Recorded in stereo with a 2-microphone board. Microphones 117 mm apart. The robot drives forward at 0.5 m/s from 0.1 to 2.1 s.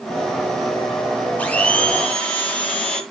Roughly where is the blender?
Centre.